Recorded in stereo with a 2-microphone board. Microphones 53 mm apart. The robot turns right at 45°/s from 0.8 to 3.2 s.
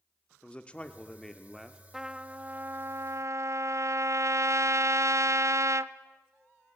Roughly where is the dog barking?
I don't hear a dog barking.